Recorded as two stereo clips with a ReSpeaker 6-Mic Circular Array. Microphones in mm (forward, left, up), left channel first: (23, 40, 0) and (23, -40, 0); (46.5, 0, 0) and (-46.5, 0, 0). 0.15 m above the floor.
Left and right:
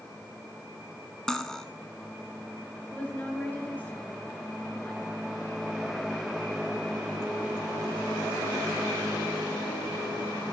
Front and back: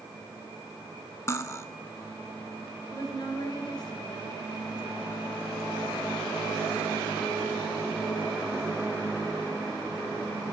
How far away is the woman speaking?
About 2.5 m.